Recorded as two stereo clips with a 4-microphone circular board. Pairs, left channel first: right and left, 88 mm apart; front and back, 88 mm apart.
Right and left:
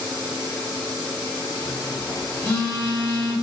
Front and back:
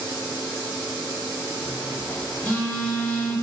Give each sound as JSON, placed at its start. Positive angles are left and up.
{"t": 1.6, "sound": "a phone buzzing", "azimuth_deg": -55, "distance_m": 0.8}